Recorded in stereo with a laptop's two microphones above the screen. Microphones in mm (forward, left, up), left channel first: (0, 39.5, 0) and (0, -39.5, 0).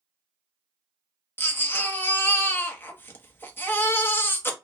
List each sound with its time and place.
1.4 s a baby crying: 30° left (ahead or behind), 0.8 m